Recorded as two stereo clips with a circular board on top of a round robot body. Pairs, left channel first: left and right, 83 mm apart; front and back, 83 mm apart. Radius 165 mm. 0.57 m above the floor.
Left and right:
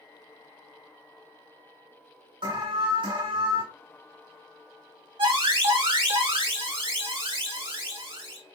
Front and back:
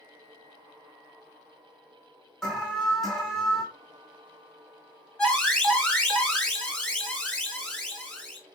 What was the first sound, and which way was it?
An alarm, 90° right.